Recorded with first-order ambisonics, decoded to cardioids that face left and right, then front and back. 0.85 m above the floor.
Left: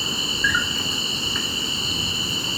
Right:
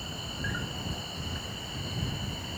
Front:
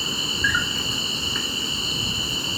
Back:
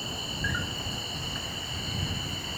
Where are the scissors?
No scissors in this recording.